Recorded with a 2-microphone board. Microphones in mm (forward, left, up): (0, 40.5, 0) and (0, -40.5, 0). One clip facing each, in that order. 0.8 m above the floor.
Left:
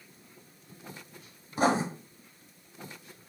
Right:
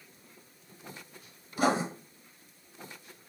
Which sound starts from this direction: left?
Writing, at 1.6 s.